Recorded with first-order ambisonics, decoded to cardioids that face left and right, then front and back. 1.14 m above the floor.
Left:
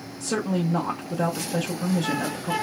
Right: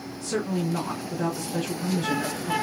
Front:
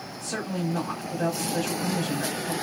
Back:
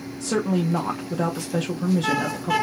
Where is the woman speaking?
150° left, 0.7 m.